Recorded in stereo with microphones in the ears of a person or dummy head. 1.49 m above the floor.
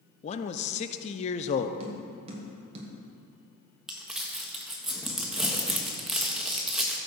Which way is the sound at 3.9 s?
5° right (ahead or behind).